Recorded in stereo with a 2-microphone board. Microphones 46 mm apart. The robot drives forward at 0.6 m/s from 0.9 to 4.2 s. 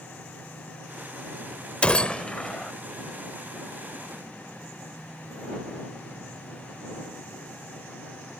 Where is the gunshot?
30° left (ahead or behind); by 2.7 s 20° left (ahead or behind).